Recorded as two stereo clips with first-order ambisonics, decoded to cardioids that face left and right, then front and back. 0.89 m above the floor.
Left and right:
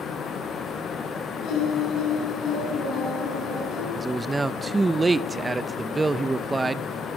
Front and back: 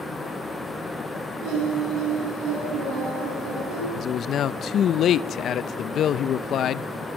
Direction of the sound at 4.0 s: 20° right.